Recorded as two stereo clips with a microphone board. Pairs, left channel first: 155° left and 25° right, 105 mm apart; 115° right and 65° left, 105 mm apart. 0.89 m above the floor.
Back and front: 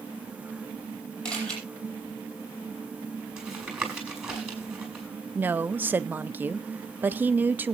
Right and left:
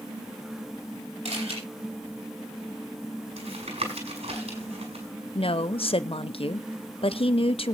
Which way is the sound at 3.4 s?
60° left.